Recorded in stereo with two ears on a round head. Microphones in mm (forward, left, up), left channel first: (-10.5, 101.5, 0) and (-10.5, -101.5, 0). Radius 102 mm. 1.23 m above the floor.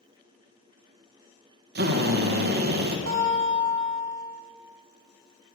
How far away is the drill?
About 1.4 m.